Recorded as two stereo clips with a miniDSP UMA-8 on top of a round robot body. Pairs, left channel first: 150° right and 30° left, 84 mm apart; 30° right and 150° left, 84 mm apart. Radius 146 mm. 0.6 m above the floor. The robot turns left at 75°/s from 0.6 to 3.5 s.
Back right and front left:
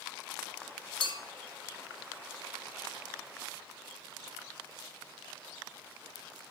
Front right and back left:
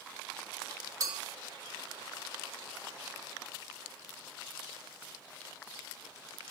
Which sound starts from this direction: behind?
A clink, at 1.0 s.